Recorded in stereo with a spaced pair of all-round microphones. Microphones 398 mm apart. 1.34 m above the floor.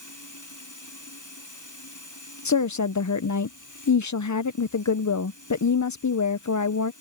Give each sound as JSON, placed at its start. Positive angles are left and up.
{"t": 0.0, "sound": "running water", "side_deg": 50}
{"t": 2.5, "sound": "a woman speaking", "side_deg": 45}